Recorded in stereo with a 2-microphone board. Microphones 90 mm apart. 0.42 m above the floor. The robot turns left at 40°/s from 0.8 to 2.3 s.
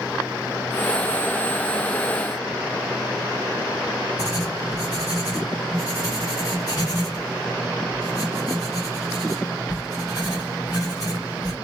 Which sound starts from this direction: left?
Writing, at 4.2 s.